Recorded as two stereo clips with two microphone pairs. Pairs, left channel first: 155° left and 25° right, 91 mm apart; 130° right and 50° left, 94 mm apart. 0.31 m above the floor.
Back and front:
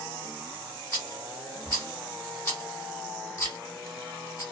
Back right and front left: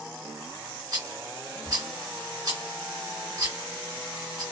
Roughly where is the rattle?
Left.